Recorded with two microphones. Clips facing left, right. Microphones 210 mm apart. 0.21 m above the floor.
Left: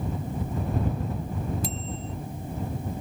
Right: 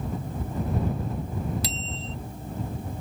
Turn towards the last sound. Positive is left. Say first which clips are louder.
# left 1 dB
turn(degrees=-80)